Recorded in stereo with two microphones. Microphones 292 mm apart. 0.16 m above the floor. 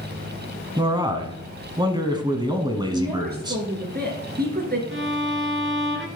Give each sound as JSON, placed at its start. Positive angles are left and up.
{"t": 0.8, "sound": "a man speaking", "side_deg": -15, "distance_m": 1.0}
{"t": 2.9, "sound": "a woman speaking", "side_deg": -35, "distance_m": 2.5}
{"t": 4.9, "sound": "a violin", "side_deg": -45, "distance_m": 1.2}